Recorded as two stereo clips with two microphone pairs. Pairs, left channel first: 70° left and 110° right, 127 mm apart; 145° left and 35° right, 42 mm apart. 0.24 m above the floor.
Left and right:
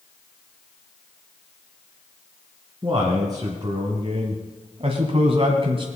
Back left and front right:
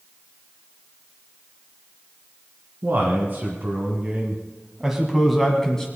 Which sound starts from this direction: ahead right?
A man speaking, at 2.8 s.